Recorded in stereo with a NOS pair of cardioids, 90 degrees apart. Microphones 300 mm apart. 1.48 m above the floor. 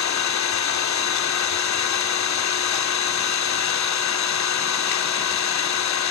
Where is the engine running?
70° left, 3 m.